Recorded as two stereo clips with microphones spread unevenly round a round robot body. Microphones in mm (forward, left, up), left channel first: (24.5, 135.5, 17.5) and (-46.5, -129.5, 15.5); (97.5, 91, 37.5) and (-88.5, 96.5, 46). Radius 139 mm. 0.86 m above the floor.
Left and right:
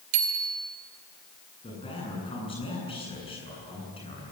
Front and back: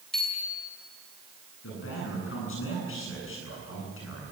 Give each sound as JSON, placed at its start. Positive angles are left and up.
{"t": 0.1, "sound": "a bicycle bell", "azimuth_deg": -90, "distance_m": 3.0}
{"t": 1.6, "sound": "a man speaking", "azimuth_deg": 0, "distance_m": 9.0}